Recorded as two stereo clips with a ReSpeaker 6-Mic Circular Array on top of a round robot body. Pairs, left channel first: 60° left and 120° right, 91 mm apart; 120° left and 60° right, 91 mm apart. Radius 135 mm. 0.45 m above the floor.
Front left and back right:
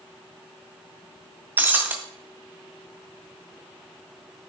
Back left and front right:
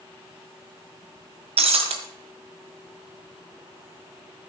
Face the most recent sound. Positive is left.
turn(degrees=-50)